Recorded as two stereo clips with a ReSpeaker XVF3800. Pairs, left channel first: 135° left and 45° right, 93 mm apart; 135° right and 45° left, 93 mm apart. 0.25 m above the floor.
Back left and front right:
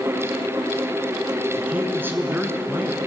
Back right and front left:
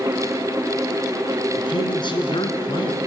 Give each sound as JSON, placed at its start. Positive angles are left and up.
{"t": 1.6, "sound": "a man speaking", "azimuth_deg": -110, "distance_m": 3.0}